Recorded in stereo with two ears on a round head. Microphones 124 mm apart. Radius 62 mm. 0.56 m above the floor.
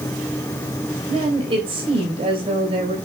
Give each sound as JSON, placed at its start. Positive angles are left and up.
{"t": 1.1, "sound": "a woman speaking", "side_deg": -40, "distance_m": 3.5}